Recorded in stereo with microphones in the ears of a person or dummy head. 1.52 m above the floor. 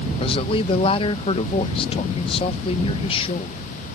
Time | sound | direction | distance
0.2 | a man speaking | 25° left (ahead or behind) | ?